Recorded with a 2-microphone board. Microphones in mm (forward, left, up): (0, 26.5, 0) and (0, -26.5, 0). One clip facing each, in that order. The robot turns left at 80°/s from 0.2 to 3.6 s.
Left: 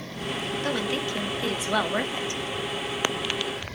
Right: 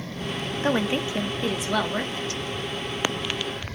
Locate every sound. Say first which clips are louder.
0.6 s a woman speaking: right 5 dB; 25° right (ahead or behind), 0.9 m; by 2.4 s 25° left (ahead or behind), 0.9 m